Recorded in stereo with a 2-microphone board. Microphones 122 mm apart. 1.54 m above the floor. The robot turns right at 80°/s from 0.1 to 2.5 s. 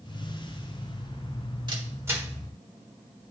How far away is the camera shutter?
About 1.6 m.